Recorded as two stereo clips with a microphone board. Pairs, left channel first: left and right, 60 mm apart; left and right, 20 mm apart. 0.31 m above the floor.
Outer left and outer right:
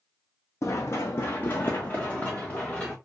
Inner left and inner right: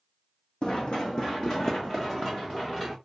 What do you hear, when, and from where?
0.6 s running footsteps: 55° left (ahead or behind), 1.0 m; by 3.0 s 20° left (ahead or behind), 1.9 m